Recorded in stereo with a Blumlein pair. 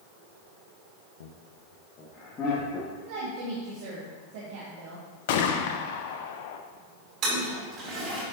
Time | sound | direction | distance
1.2 | laughter | 65° left | 0.7 m
3.0 | a woman speaking | 50° right | 2.0 m
5.3 | a gunshot | 50° left | 0.9 m
7.2 | a toilet flushing | 35° right | 3.5 m